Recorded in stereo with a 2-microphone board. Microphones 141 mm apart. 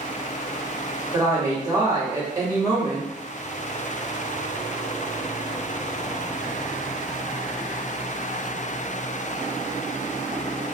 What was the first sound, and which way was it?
A woman speaking, 25° right (ahead or behind).